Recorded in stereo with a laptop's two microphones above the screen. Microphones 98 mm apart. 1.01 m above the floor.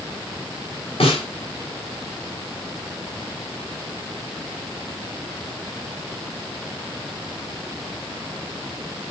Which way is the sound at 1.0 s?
75° left (ahead or behind).